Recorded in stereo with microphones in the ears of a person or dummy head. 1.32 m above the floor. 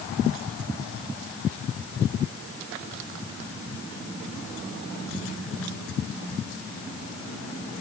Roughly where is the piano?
I don't hear a piano.